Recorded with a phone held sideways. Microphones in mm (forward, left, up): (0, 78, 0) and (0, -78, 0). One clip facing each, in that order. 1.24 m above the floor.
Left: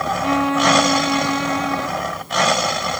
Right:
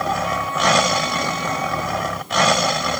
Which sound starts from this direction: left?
A violin, at 0.2 s.